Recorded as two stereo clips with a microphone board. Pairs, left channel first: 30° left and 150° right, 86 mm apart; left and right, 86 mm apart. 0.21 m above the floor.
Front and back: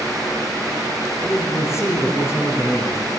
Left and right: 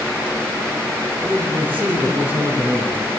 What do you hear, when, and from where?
1.2 s a man speaking: 25° right, 5 m